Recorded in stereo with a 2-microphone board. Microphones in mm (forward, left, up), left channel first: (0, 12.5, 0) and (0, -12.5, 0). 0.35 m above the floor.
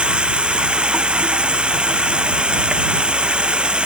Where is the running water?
45° right (ahead or behind).